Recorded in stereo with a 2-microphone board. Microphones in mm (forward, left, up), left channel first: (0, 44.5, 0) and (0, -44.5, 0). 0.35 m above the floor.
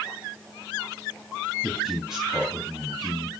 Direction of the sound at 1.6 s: 5° right (ahead or behind).